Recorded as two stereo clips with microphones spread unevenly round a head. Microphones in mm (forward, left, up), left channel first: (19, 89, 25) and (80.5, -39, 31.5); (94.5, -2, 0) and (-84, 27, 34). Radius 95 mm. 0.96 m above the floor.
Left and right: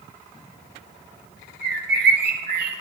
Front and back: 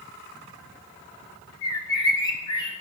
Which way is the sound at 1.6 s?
75° right.